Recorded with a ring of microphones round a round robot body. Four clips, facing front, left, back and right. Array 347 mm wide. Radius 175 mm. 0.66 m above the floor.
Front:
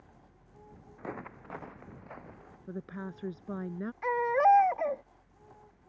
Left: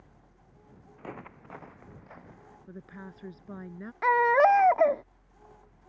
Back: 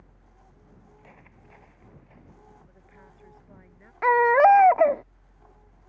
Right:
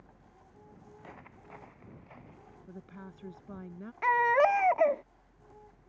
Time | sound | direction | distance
1.0 | footsteps | 30° left | ?
2.7 | a woman speaking | 5° left | ?
4.0 | a baby crying | 165° left | ?